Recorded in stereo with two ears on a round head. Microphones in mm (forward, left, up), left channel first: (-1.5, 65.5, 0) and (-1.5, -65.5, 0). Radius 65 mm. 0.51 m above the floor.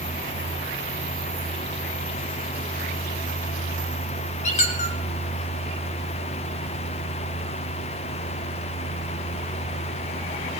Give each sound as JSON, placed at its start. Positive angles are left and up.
{"t": 4.4, "sound": "a squeak", "side_deg": 50, "distance_m": 2.5}